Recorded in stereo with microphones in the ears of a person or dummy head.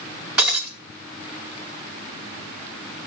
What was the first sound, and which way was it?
Breaking glass, 5° right (ahead or behind).